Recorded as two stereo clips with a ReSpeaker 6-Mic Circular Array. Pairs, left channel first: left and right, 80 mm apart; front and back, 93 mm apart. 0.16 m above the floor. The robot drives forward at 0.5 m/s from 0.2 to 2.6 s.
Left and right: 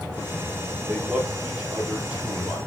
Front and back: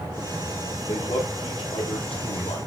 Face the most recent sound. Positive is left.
turn(degrees=-20)